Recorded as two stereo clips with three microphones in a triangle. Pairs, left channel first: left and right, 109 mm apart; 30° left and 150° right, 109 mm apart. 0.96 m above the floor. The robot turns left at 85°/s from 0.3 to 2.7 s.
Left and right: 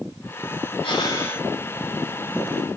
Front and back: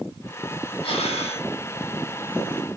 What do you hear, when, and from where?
0.8 s breathing: 60° left, 0.7 m; by 1.5 s 5° left, 0.7 m